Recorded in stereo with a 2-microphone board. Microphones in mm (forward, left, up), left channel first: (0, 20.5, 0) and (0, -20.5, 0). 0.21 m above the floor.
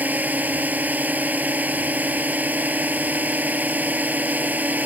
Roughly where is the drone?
Right.